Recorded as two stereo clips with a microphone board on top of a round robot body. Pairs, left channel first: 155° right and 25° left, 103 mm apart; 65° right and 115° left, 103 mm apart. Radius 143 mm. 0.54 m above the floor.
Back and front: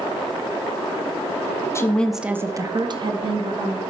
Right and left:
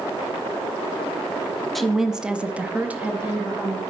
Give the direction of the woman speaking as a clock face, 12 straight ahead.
5 o'clock.